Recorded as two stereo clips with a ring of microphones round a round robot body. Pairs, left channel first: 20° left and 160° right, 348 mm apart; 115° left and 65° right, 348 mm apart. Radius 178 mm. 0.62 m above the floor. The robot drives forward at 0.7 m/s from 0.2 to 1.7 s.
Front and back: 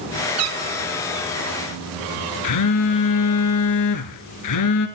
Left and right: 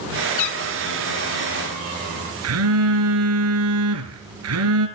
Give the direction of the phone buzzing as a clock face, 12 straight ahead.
1 o'clock.